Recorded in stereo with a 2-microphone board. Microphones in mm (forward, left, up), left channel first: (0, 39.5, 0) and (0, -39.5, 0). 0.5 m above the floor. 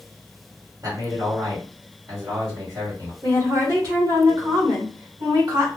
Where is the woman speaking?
55° right (ahead or behind), 1.8 m.